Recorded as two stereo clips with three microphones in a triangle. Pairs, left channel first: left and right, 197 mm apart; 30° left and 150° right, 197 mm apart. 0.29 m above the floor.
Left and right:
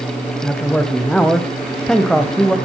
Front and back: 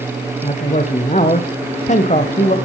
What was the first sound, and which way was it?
A man speaking, 5° left.